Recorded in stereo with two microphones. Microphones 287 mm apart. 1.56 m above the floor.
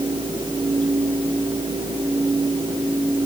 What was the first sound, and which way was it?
Only background noise.